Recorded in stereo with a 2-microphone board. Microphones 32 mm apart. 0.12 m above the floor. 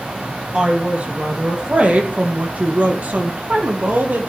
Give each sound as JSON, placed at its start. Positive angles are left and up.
{"t": 0.5, "sound": "a woman speaking", "side_deg": -40, "distance_m": 3.5}